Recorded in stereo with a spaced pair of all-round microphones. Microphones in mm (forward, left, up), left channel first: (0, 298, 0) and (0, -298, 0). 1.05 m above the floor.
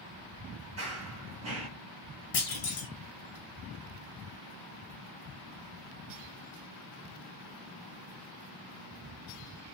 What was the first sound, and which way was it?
Running footsteps, 25° right (ahead or behind).